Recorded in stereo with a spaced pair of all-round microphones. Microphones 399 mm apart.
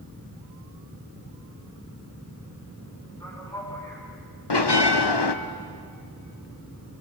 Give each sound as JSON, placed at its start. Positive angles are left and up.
{"t": 3.2, "sound": "a man speaking", "side_deg": 10, "distance_m": 7.0}
{"t": 4.5, "sound": "a bell", "side_deg": 80, "distance_m": 0.9}